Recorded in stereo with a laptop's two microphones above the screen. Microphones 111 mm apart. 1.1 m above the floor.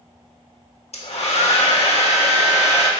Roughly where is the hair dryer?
Left.